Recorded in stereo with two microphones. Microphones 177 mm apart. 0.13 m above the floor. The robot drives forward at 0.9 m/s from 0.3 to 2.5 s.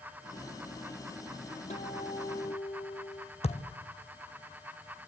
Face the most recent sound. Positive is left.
turn(degrees=35)  # may be behind; listen again after turning